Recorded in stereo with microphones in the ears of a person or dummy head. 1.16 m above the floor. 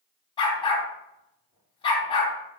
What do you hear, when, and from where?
0.4 s a dog barking: 25° left (ahead or behind), 3.5 m